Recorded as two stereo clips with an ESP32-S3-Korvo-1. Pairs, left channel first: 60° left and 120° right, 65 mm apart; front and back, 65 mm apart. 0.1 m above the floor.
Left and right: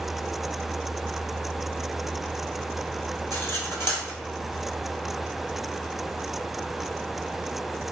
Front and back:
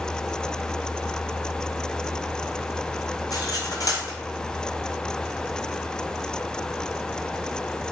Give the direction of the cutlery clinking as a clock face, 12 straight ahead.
12 o'clock.